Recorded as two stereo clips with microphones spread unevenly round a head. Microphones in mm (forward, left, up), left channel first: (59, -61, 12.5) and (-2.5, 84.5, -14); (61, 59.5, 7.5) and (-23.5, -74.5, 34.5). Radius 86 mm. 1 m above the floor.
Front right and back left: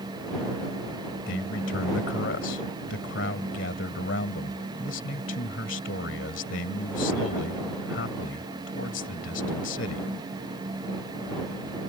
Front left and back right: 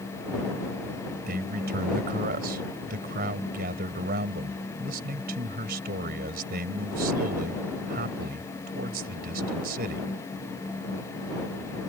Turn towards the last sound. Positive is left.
turn(degrees=-90)